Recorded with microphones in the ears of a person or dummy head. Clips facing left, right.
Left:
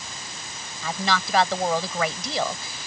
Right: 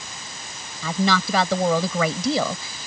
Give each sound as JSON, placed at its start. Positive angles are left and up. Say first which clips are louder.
{"t": 0.8, "sound": "a woman speaking", "louder": "right 5 dB", "side_deg": -80}